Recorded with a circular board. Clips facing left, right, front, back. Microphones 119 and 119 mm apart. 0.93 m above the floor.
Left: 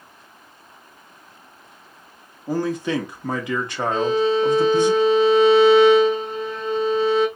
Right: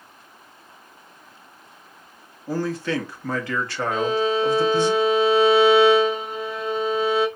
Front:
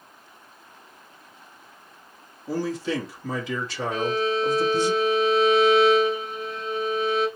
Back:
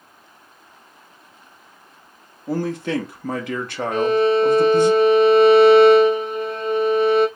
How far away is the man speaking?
About 1.3 m.